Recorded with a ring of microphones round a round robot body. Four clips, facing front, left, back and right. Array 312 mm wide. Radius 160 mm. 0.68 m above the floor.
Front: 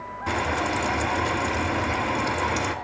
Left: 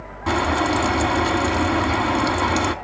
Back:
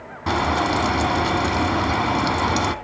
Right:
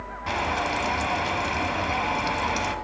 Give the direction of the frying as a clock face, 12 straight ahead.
7 o'clock.